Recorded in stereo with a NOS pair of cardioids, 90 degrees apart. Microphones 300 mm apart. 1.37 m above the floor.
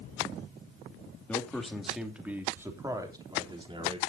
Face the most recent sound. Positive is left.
turn(degrees=-20)